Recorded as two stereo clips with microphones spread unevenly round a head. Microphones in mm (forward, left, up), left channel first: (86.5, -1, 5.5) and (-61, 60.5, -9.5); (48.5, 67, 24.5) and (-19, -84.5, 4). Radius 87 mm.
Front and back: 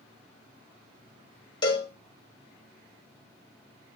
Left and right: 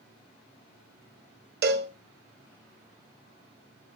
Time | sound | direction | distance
1.6 | a cowbell | 85° right | 1.3 m